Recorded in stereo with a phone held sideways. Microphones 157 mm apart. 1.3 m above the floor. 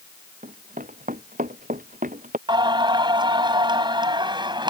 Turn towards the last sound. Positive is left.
turn(degrees=-30)  # may be behind; listen again after turning